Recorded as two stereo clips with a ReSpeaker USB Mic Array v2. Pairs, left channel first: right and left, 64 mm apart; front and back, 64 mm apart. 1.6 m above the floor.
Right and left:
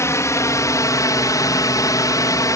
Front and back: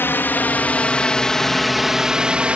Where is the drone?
55° right; by 2.6 s 110° right.